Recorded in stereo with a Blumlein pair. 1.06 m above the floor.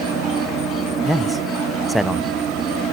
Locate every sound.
0.0 s an insect: 20° right, 3.5 m
1.1 s a man speaking: 5° left, 0.8 m